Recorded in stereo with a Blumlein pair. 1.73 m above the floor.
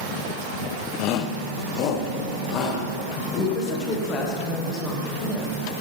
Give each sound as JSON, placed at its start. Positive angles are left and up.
{"t": 1.0, "sound": "a shout", "azimuth_deg": 40, "distance_m": 0.7}
{"t": 3.5, "sound": "a woman speaking", "azimuth_deg": 25, "distance_m": 2.5}